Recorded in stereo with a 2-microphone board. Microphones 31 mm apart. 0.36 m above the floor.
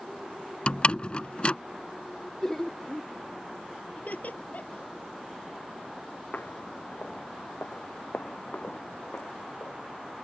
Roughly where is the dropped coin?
I don't hear a dropped coin.